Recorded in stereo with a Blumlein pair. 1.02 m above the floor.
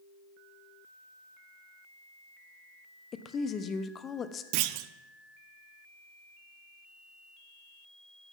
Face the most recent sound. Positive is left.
turn(degrees=-45)